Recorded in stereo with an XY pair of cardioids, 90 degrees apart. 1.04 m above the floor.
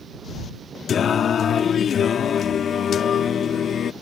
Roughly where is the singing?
Ahead left.